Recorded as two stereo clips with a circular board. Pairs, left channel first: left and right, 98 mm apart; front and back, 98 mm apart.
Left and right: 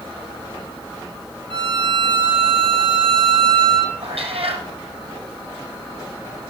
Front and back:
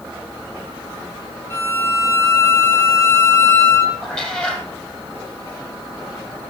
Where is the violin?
70° right, 3 m.